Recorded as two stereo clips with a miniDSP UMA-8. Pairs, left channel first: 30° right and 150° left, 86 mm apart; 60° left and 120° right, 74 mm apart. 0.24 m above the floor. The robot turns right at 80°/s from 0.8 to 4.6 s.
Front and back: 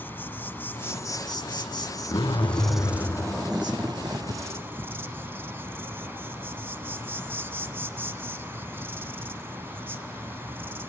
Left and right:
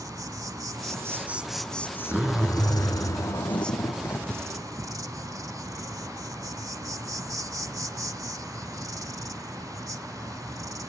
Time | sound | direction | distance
0.0 | an insect | 95° right | 0.9 m
2.1 | a zipper | 50° right | 2.5 m